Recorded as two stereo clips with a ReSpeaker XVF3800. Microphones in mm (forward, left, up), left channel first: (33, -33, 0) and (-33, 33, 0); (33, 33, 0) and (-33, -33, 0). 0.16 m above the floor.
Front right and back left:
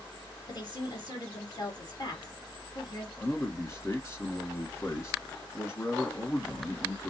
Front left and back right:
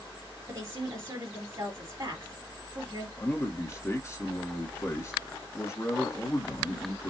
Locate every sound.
0.5 s a woman speaking: 85° right, 4 m
3.2 s a man speaking: straight ahead, 1.8 m